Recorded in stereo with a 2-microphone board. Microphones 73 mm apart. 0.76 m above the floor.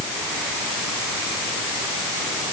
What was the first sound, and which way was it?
Only background noise.